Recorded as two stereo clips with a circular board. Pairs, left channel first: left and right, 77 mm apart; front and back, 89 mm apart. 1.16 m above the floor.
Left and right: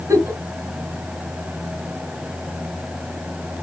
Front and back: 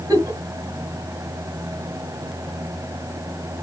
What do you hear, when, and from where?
0.1 s a giggle: 135° right, 3 m